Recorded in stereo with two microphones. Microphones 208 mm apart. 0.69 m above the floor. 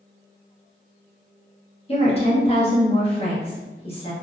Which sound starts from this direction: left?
A woman speaking, at 1.9 s.